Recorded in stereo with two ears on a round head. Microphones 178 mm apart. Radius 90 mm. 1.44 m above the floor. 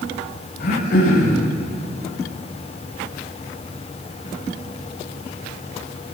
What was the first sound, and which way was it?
Throat clearing, 55° left (ahead or behind).